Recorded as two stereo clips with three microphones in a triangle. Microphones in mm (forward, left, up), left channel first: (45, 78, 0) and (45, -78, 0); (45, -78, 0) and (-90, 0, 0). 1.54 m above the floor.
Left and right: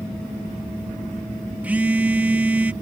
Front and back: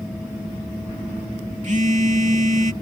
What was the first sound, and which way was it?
A phone buzzing, 170° right.